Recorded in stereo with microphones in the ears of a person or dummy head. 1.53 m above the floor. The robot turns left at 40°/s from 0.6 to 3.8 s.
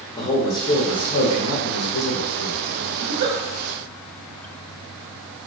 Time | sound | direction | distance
0.1 | a man speaking | 155° left | 0.7 m
3.0 | a giggle | 55° right (ahead or behind) | 0.7 m